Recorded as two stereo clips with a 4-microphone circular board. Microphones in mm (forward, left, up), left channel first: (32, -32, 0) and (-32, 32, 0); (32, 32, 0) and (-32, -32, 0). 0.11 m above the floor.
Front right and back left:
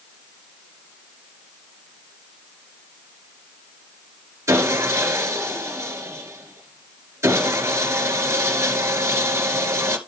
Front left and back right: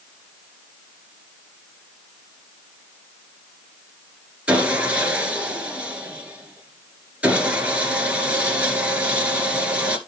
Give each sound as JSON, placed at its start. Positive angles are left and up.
{"t": 4.5, "sound": "sawing", "azimuth_deg": 160, "distance_m": 1.9}